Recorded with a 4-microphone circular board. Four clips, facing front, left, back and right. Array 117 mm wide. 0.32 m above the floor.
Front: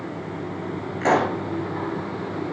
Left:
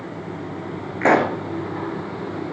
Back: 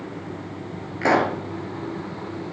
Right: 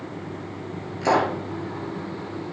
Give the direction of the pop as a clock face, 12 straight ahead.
9 o'clock.